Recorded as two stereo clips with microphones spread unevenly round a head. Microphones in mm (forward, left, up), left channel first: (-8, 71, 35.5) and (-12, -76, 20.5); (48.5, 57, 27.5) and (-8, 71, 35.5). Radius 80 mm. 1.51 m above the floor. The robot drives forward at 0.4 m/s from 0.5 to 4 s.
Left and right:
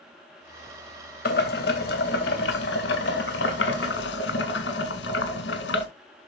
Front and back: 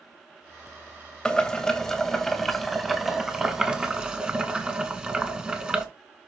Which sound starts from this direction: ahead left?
Boiling, at 1.2 s.